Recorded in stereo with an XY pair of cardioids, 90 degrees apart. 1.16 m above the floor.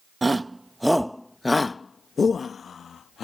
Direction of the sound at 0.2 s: 20° right.